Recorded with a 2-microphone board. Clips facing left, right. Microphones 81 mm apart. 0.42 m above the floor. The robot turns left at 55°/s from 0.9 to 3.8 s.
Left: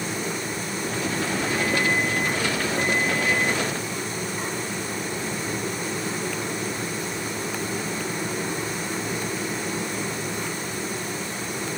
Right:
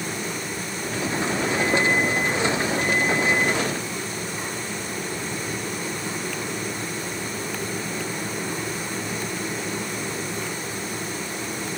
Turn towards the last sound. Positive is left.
No sound to turn to.